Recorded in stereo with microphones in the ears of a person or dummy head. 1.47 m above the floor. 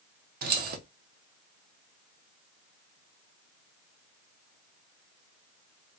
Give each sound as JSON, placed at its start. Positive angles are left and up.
{"t": 0.4, "sound": "keys jangling", "side_deg": -50, "distance_m": 0.8}